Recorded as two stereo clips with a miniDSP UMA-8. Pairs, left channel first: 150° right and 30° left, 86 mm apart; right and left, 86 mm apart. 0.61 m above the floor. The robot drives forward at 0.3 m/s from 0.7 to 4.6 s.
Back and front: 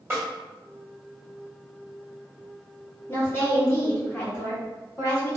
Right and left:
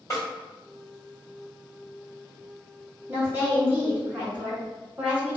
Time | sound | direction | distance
0.1 | a snare drum | 30° right | 1.5 m
3.1 | a woman speaking | 150° left | 1.3 m